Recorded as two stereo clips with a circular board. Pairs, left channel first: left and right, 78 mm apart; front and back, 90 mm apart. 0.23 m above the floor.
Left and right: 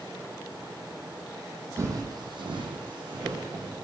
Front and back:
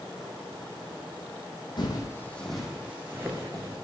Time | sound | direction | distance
1.8 | footsteps | 35° right | 0.6 m